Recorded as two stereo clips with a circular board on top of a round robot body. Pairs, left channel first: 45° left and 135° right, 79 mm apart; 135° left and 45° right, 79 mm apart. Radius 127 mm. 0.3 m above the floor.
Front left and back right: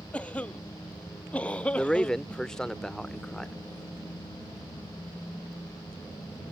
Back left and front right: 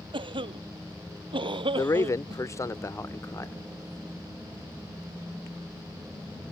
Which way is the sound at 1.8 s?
120° left.